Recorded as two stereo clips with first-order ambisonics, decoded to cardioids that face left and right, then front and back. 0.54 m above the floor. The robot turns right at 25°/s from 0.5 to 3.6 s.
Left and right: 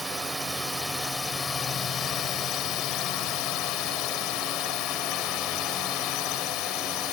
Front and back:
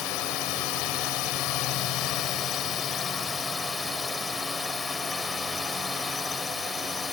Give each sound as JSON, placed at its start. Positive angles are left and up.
{"t": 0.0, "sound": "a drone", "azimuth_deg": -5}